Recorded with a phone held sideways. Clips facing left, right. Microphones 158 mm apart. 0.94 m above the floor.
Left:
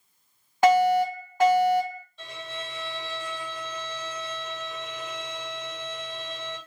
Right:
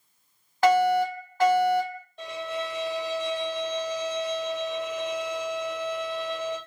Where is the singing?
No singing in this recording.